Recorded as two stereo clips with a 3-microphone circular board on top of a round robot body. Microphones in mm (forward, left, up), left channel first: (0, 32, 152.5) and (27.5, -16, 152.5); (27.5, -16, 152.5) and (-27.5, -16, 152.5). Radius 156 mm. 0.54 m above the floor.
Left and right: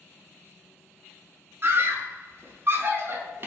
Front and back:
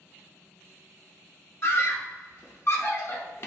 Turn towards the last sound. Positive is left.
turn(degrees=-25)